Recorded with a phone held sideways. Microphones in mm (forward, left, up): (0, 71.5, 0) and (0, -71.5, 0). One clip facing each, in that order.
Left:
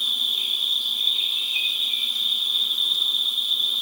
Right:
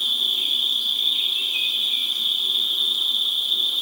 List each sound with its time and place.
0.0 s an insect: 70° right (ahead or behind), 0.8 m